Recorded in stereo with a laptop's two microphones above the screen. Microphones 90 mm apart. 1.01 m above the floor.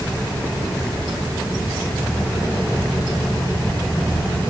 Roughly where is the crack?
No crack in this recording.